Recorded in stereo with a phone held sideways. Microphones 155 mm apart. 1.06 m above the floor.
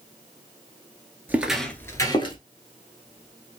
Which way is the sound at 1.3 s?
10° right (ahead or behind).